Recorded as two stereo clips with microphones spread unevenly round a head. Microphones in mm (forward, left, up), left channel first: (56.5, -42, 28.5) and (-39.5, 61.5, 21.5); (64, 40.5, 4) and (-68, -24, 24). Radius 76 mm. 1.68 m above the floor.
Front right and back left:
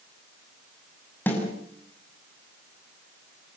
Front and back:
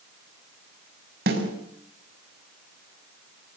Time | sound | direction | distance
1.3 | a snare drum | 125° right | 6.5 m